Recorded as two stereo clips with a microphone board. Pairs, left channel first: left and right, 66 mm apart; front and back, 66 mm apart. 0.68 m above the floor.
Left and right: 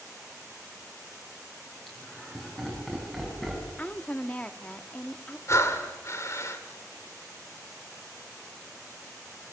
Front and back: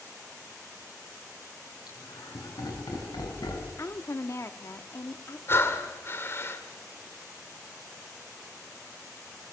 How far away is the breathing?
About 2.0 m.